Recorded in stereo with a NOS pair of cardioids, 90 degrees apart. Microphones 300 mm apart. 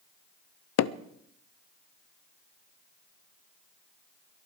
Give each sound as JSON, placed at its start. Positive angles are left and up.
{"t": 0.8, "sound": "hammering", "azimuth_deg": 70, "distance_m": 0.6}